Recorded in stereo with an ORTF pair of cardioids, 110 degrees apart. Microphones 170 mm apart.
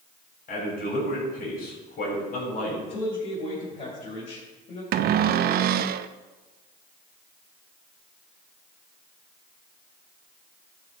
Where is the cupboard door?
60° right, 0.6 m.